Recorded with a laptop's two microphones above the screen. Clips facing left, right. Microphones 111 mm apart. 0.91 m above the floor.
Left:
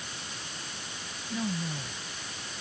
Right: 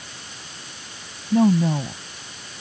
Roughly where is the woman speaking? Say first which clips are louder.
Right 16 dB; right.